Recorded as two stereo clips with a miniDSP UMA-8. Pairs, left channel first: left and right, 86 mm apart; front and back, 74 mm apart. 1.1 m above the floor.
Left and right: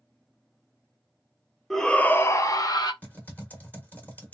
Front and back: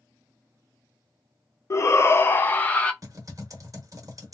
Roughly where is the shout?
Ahead.